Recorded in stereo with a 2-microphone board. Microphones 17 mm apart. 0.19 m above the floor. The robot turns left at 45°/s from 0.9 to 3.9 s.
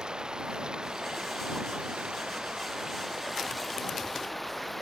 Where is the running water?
50° right; by 4.8 s 175° left.